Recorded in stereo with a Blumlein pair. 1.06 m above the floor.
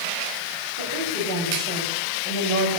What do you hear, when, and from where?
0.8 s a woman speaking: 55° right, 7 m; by 2.8 s 45° right, 6.5 m